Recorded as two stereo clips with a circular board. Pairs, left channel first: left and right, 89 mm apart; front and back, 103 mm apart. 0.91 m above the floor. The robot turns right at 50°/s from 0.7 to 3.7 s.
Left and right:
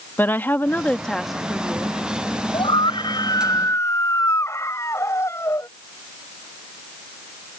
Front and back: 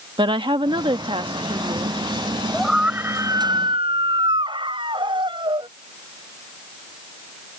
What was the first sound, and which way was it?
A woman speaking, 155° left.